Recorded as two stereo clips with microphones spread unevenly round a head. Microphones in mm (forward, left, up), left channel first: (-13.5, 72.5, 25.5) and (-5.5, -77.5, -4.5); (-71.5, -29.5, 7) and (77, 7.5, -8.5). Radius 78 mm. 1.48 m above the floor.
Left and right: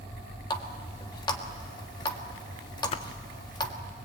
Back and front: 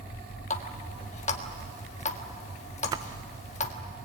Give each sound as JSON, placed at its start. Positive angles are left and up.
{"t": 0.5, "sound": "a running tap", "azimuth_deg": 150, "distance_m": 1.6}
{"t": 2.9, "sound": "a splash", "azimuth_deg": 80, "distance_m": 0.6}